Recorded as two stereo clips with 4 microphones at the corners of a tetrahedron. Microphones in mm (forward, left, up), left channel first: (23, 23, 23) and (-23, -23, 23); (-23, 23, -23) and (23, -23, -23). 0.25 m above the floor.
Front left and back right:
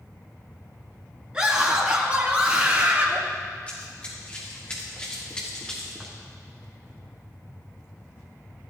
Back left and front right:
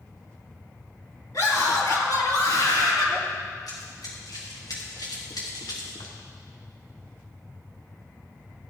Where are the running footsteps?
115° left, 4.5 m; by 6.2 s 125° left, 3 m.